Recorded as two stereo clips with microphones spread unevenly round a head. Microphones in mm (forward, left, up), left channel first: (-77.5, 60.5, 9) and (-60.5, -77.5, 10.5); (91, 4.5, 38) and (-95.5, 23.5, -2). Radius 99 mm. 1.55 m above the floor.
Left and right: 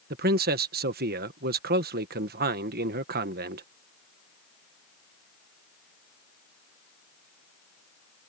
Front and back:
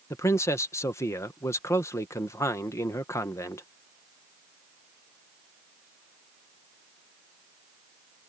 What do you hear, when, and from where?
0.1 s a man speaking: 80° right